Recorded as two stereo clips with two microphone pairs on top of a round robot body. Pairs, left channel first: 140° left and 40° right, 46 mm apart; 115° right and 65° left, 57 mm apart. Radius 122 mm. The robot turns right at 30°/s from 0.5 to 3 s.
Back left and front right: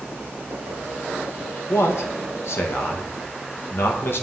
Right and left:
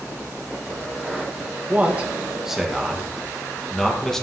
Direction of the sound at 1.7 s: 120° left.